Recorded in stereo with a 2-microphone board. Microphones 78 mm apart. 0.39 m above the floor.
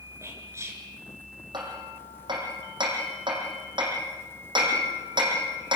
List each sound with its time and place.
0.2 s whispering: 35° right (ahead or behind), 5 m
1.5 s hammering: 75° right (ahead or behind), 5.5 m